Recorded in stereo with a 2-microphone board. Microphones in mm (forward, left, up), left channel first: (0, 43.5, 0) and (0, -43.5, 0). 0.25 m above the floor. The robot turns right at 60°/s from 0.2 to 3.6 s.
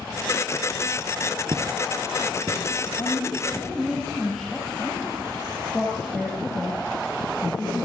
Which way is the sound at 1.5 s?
65° right (ahead or behind).